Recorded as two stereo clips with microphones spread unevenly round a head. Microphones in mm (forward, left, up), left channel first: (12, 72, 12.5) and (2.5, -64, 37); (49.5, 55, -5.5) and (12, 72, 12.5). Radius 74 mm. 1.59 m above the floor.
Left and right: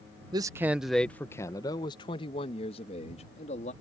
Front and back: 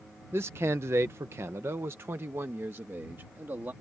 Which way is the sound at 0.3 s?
155° right.